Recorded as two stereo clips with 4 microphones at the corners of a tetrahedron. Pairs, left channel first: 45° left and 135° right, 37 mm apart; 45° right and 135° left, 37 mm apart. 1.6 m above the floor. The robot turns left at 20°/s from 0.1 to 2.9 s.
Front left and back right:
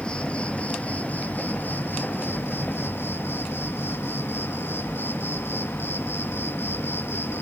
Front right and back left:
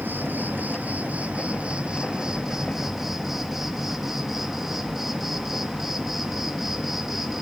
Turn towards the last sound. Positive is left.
turn(degrees=50)